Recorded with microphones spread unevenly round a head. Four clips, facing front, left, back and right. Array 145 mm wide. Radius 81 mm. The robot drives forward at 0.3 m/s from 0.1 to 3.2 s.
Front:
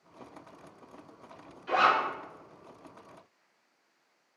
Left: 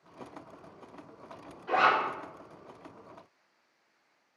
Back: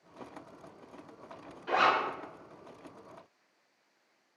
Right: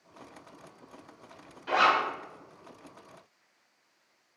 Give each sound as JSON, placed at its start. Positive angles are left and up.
{"t": 1.7, "sound": "a zipper", "azimuth_deg": -95, "distance_m": 1.4}